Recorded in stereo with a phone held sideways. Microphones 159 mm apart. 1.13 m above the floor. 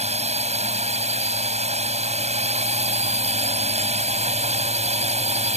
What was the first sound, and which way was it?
A drone, 45° right (ahead or behind).